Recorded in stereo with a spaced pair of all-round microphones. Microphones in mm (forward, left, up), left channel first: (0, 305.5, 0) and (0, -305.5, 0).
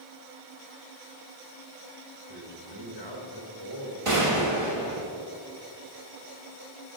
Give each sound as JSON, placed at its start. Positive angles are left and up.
{"t": 2.3, "sound": "a man speaking", "side_deg": -40, "distance_m": 2.5}
{"t": 4.0, "sound": "a gunshot", "side_deg": -55, "distance_m": 1.7}